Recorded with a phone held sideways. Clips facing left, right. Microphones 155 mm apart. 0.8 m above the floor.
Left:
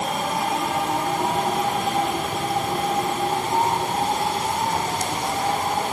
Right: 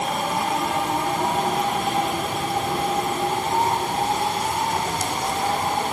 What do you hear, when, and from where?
Only background noise.